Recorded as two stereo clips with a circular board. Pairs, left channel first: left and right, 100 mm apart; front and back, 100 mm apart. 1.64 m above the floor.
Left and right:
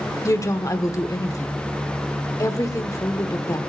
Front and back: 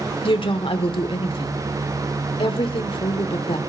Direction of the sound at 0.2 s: 30° left.